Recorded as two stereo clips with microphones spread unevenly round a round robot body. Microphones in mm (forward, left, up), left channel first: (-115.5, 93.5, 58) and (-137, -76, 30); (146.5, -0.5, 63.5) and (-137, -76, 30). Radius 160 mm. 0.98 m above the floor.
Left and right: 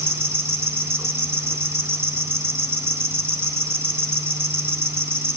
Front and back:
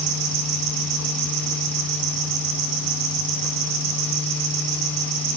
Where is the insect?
170° right, 4 m.